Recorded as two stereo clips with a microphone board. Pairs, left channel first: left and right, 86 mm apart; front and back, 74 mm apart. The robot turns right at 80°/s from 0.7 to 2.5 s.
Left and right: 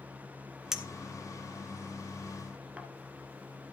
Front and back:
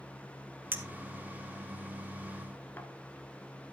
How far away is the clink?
About 1.2 m.